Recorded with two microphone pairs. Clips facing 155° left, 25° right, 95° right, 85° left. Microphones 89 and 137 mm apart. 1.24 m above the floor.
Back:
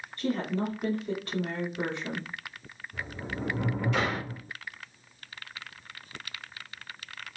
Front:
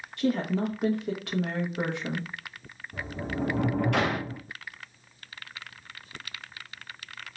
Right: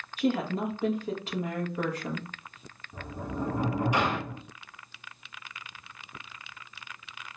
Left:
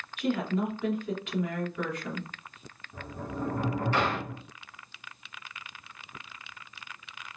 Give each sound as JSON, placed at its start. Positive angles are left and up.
{"t": 0.2, "sound": "a woman speaking", "azimuth_deg": -40, "distance_m": 1.4}
{"t": 2.9, "sound": "a sliding door", "azimuth_deg": -15, "distance_m": 0.6}